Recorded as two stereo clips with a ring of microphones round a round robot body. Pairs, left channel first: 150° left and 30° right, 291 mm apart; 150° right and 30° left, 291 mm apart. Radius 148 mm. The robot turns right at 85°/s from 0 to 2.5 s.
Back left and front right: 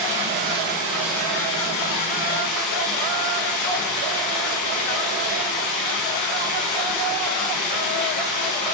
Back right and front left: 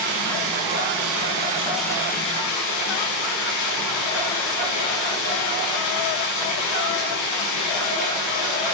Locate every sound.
0.0 s running water: 35° right, 7 m; by 8.7 s straight behind, 7 m